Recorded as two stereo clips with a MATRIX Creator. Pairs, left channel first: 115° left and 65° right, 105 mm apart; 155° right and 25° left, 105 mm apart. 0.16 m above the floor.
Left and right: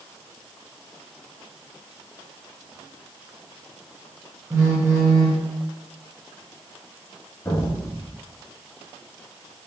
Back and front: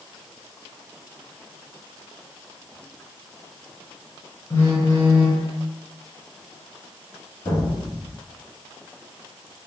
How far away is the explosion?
About 1.6 m.